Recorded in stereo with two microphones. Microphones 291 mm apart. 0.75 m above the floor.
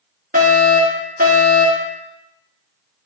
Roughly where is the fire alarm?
Right.